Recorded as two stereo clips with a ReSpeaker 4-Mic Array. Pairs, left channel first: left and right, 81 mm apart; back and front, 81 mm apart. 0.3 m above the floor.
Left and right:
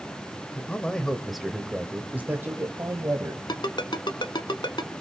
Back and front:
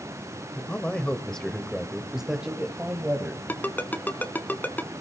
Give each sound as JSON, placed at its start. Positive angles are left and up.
{"t": 0.6, "sound": "a man speaking", "azimuth_deg": 135, "distance_m": 1.2}
{"t": 3.5, "sound": "a ringtone", "azimuth_deg": 110, "distance_m": 1.2}